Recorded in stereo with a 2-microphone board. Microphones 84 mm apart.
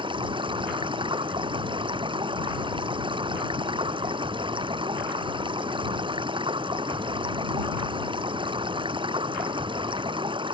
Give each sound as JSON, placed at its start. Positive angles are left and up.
{"t": 0.0, "sound": "running water", "side_deg": -80}